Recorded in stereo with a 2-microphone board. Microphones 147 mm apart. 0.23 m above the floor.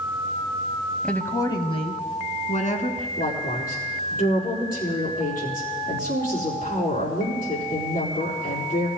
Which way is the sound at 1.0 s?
5° left (ahead or behind).